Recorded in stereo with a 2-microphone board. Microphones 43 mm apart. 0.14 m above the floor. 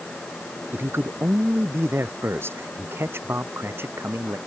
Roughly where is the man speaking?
Right.